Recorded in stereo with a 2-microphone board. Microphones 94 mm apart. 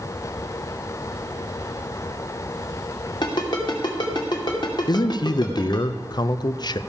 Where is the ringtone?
50° left (ahead or behind), 2.5 m.